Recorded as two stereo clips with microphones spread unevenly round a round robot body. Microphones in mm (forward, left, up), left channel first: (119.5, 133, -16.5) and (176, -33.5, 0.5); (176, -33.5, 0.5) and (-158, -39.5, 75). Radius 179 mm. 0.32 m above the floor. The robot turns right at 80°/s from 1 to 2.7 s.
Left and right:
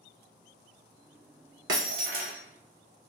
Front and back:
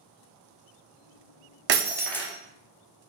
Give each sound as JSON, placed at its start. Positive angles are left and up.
{"t": 1.7, "sound": "breaking glass", "azimuth_deg": -120, "distance_m": 0.5}